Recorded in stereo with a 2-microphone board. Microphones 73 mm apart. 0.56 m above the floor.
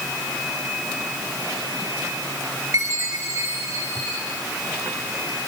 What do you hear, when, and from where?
2.7 s a chime: 45° right (ahead or behind), 7 m